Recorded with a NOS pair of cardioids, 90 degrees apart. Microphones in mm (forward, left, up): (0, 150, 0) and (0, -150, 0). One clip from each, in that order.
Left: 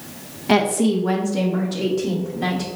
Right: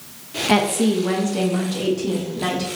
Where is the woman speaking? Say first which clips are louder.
Left 1 dB; 5° right, 0.7 m.